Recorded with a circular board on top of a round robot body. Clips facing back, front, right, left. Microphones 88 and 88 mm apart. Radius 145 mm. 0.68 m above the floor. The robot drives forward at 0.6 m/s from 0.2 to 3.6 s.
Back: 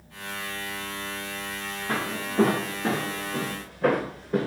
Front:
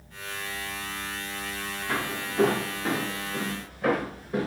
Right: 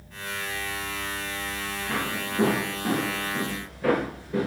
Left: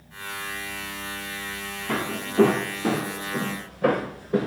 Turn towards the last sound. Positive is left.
turn(degrees=135)